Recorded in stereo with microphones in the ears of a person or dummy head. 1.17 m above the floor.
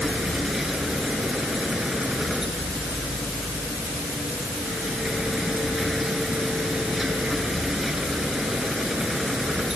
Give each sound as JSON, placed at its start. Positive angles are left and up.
{"t": 0.0, "sound": "a machine running", "side_deg": 0}